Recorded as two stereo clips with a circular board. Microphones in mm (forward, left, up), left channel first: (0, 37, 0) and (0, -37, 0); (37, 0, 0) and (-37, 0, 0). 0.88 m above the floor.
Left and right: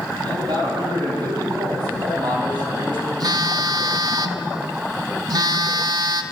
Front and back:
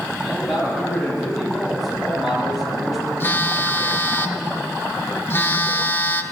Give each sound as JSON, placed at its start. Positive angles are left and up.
{"t": 0.2, "sound": "a man speaking", "azimuth_deg": -90, "distance_m": 7.5}
{"t": 3.2, "sound": "a phone buzzing", "azimuth_deg": -60, "distance_m": 0.7}